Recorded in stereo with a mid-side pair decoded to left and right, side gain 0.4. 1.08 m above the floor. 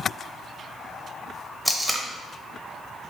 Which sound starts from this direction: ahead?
Tape being pulled, at 1.6 s.